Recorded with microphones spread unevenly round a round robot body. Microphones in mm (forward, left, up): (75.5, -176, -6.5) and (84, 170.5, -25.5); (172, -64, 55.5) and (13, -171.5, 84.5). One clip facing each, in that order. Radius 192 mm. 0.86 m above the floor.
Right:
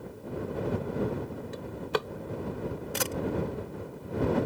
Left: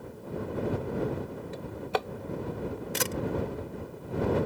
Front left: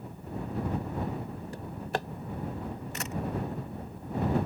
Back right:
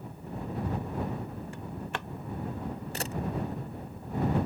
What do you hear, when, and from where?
1.5 s a drawer: 25° right
2.9 s a camera shutter: 150° left